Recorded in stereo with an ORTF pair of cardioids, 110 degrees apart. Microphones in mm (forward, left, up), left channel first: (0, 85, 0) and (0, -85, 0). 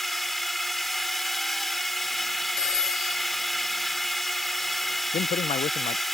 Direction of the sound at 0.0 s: Straight ahead.